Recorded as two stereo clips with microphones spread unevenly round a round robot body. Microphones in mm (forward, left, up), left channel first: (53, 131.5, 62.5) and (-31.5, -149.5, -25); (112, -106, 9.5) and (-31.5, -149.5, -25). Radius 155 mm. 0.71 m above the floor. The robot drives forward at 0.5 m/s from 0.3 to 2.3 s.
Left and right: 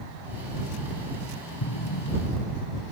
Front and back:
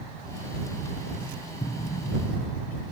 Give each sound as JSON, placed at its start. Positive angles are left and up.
{"t": 1.6, "sound": "an explosion", "azimuth_deg": 70}